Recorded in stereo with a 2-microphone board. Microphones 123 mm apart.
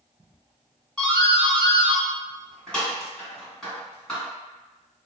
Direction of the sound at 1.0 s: 5° left (ahead or behind).